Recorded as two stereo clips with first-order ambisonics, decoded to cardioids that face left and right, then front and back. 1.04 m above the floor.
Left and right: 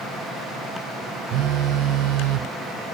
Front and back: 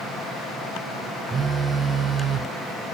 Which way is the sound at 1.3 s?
110° right.